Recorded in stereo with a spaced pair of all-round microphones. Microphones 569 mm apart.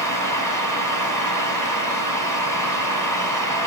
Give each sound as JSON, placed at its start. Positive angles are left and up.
{"t": 0.0, "sound": "a fan", "side_deg": -35, "distance_m": 4.5}